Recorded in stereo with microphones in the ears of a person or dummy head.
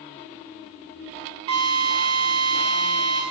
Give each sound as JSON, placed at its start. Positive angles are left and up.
{"t": 1.5, "sound": "a drill", "side_deg": -30, "distance_m": 1.7}